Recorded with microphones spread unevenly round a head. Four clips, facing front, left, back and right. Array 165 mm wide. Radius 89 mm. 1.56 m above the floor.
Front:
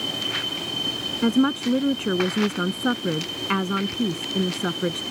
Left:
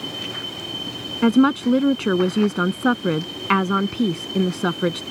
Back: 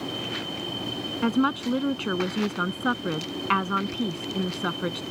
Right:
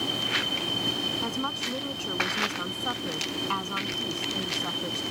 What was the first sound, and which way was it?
A woman speaking, 85° left.